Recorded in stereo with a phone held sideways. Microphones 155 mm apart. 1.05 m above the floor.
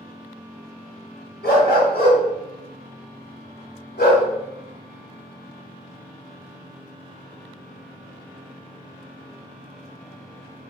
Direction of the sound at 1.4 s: 80° left.